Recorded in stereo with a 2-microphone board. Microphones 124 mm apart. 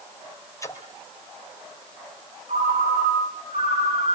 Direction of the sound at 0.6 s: 25° left (ahead or behind).